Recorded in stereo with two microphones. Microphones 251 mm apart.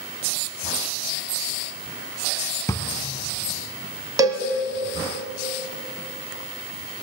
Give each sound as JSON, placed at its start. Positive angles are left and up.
{"t": 2.7, "sound": "a drawer", "side_deg": 15, "distance_m": 0.8}
{"t": 4.2, "sound": "a cowbell", "side_deg": -15, "distance_m": 1.5}